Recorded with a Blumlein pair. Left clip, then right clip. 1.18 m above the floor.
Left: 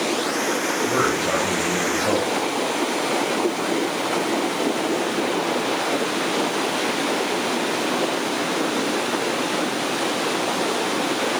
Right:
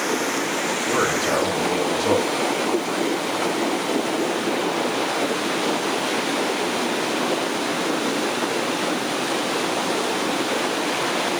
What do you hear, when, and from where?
0.9 s a man speaking: straight ahead, 4 m